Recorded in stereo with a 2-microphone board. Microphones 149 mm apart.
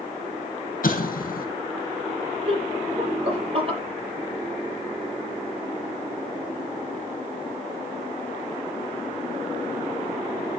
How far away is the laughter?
About 5 m.